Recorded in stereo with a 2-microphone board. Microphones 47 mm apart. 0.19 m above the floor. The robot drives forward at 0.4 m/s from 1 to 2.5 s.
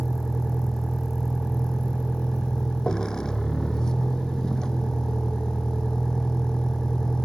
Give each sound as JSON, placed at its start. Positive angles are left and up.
{"t": 0.0, "sound": "a vehicle", "side_deg": 15}